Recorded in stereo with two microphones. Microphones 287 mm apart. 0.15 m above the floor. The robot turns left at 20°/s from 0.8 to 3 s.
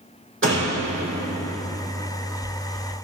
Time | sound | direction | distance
0.4 | a door slam | 40° right (ahead or behind) | 5 m